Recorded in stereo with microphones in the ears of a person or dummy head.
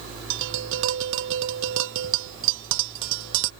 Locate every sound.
0.3 s tapping: 70° right (ahead or behind)